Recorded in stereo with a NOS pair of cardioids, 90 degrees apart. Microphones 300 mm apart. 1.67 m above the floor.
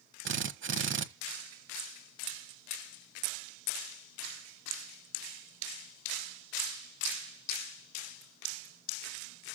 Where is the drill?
40° right, 1.5 m.